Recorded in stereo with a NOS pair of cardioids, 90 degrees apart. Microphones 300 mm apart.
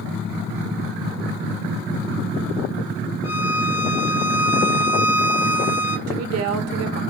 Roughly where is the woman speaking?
Ahead right.